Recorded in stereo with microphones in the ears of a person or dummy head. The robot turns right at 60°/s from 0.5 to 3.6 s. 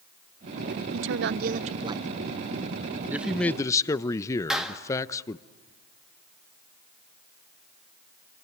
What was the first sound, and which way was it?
A woman speaking, 85° right.